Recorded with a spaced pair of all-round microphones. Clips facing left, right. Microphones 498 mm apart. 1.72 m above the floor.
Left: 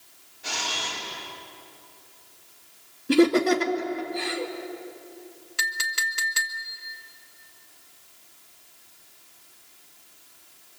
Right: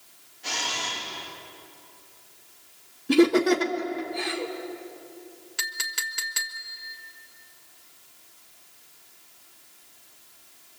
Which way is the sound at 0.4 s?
20° right (ahead or behind).